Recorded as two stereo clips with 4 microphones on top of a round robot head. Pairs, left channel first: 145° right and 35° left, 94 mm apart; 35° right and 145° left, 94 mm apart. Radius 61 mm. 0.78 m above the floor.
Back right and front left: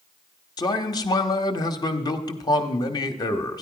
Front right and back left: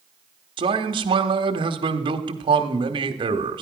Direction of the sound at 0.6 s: 175° left.